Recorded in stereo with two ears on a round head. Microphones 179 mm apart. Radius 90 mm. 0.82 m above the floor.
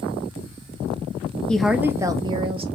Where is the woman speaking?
5° left (ahead or behind), 0.5 m; by 2.7 s 25° right (ahead or behind), 0.9 m.